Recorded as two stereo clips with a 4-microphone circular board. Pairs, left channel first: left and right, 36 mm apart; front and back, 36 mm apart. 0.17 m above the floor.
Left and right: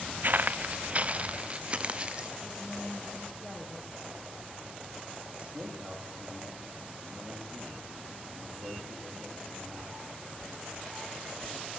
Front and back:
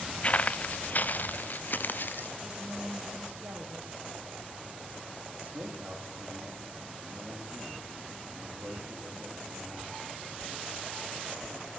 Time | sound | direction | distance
0.2 | footsteps | 55° right | 0.6 m
2.4 | a woman speaking | 170° right | 5 m
5.4 | a man speaking | 145° right | 9 m